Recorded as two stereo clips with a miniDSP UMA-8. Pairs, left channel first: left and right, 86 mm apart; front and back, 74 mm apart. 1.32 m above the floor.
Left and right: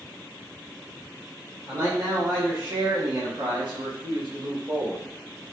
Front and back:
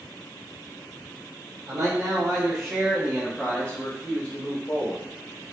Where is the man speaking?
145° right, 1.0 m; by 5.1 s 55° right, 1.4 m.